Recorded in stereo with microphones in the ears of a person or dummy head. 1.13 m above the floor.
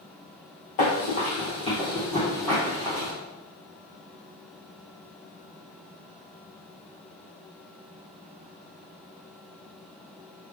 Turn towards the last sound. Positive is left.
turn(degrees=0)  # may be behind; listen again after turning